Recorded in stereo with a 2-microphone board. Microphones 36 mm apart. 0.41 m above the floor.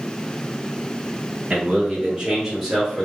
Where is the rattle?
No rattle in this recording.